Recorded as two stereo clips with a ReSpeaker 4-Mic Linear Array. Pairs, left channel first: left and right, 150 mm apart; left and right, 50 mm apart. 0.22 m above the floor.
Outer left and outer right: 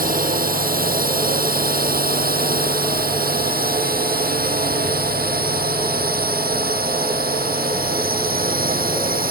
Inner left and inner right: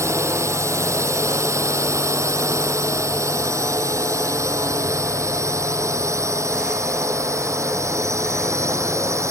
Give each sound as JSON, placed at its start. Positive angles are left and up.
{"t": 0.0, "sound": "a drone", "side_deg": -70}